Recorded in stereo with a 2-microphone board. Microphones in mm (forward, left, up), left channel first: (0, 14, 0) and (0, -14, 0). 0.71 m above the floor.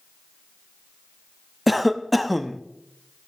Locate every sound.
1.7 s a cough: centre (ahead or behind), 0.6 m